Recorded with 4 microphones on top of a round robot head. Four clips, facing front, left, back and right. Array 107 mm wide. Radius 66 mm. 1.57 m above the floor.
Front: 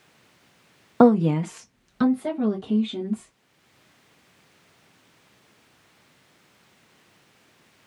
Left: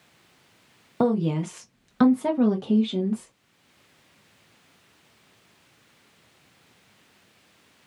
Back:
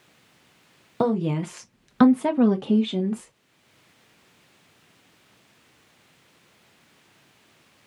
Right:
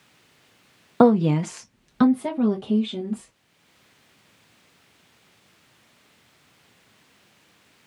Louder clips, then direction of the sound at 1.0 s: Right 6 dB, front 7 dB; 45° right.